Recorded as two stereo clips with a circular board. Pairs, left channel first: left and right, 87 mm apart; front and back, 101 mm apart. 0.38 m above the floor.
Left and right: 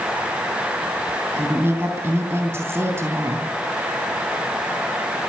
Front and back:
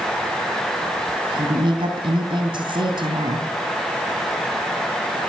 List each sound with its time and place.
1.3 s a woman speaking: 150° right, 3.5 m